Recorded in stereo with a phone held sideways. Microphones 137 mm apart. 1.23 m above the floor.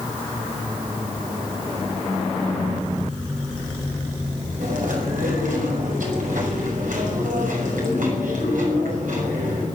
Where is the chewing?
80° right, 5.5 m.